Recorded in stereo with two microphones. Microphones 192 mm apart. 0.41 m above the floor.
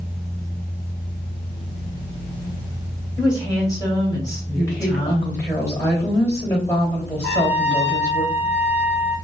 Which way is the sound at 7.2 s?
10° left (ahead or behind).